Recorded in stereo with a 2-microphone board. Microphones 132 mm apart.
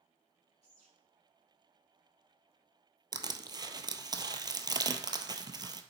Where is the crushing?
30° right (ahead or behind), 0.5 m.